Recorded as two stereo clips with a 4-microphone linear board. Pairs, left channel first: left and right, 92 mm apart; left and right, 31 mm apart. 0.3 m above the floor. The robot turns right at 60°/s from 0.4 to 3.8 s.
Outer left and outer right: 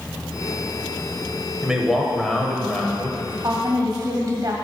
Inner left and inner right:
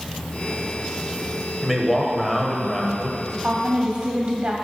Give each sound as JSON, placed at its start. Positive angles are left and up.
{"t": 1.6, "sound": "a man speaking", "side_deg": -10, "distance_m": 0.9}
{"t": 3.4, "sound": "a woman speaking", "side_deg": -40, "distance_m": 1.8}